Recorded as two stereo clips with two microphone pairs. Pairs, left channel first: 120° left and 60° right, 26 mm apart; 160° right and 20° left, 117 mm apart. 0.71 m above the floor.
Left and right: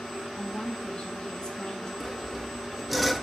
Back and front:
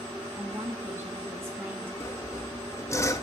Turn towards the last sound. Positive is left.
turn(degrees=-140)